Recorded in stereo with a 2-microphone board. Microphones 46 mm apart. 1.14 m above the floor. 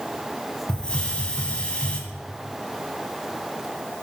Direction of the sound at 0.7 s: 20° left (ahead or behind).